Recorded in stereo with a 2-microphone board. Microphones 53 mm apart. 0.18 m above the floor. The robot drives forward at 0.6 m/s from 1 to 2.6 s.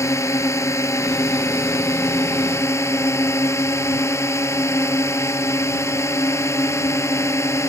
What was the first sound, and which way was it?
A drone, 65° left (ahead or behind).